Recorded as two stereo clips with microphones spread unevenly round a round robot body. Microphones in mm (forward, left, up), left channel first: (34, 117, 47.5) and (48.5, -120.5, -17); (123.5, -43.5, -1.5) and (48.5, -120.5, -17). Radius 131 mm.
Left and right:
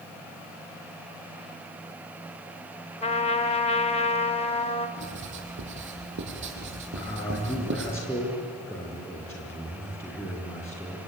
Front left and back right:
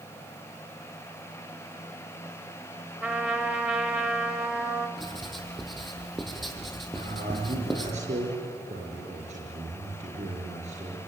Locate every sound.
3.0 s a trumpet: 165° left, 1.5 m
5.0 s writing: 45° right, 4.5 m
6.9 s a man speaking: straight behind, 4.5 m